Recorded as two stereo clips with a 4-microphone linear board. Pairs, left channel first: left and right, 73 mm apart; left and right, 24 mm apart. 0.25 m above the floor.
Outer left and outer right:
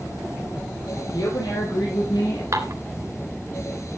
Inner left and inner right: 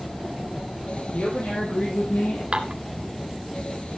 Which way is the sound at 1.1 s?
75° left (ahead or behind).